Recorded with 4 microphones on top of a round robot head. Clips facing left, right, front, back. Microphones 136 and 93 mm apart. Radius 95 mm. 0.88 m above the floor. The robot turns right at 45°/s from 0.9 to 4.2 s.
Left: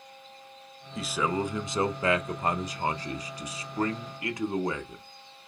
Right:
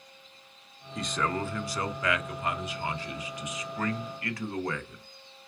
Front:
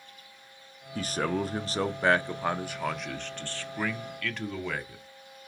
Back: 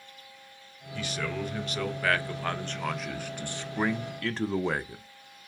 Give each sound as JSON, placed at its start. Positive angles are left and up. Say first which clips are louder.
{"t": 0.9, "sound": "a man speaking", "louder": "left 2 dB, front 4 dB", "azimuth_deg": 0, "distance_m": 0.5}